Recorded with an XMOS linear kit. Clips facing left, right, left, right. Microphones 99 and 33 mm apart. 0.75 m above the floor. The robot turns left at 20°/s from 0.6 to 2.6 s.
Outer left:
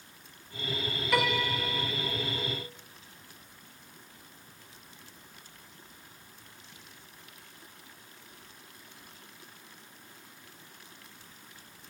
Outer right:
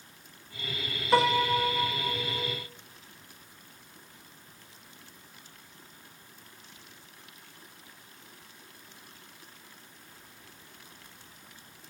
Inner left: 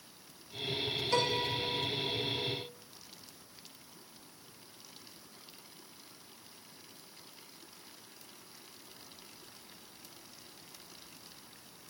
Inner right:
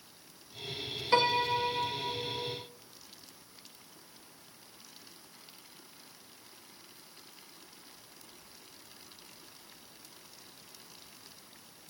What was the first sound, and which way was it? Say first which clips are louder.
A piano: outer right 6 dB, inner right 6 dB; 30° right (ahead or behind).